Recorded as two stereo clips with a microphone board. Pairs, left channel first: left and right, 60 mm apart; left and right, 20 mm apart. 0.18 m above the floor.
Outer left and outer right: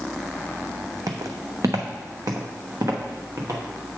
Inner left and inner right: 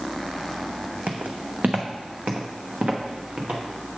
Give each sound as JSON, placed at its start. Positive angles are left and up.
{"t": 1.1, "sound": "footsteps", "side_deg": -80, "distance_m": 0.7}